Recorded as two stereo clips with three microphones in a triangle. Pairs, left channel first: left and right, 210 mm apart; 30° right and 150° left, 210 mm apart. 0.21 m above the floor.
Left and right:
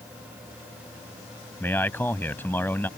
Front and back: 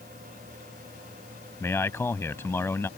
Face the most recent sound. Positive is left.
turn(degrees=25)